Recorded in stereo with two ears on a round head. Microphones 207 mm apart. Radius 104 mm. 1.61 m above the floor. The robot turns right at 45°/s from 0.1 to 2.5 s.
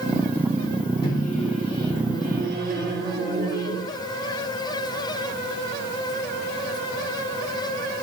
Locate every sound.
1.0 s a microwave: 160° left, 2.5 m; by 3.8 s 135° right, 2.5 m